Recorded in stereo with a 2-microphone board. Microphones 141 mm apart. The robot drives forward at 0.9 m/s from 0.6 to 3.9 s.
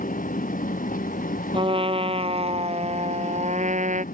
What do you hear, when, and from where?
0.0 s an engine running: 75° left (ahead or behind); by 4.2 s 85° left
1.5 s a trumpet: 40° right (ahead or behind); by 4.0 s 65° right (ahead or behind)